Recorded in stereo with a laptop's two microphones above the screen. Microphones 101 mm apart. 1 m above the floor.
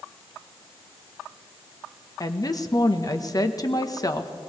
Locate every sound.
2.2 s a woman speaking: 35° left (ahead or behind), 1.1 m